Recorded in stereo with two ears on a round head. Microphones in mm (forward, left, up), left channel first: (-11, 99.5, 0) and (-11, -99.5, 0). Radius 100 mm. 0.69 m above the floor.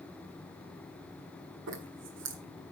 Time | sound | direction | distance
1.7 | a zipper | 55° right (ahead or behind) | 1.5 m